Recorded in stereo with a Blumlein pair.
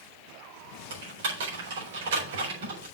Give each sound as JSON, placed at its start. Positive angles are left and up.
{"t": 0.9, "sound": "typing on a keyboard", "azimuth_deg": -55, "distance_m": 4.5}